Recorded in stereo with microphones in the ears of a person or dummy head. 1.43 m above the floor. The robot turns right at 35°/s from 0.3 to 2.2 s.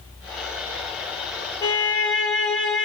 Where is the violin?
20° left (ahead or behind), 0.7 m; by 2.9 s 5° left (ahead or behind), 0.7 m.